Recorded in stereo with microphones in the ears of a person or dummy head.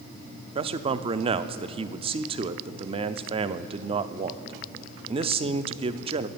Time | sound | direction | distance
0.6 | a man speaking | 35° right (ahead or behind) | 0.5 m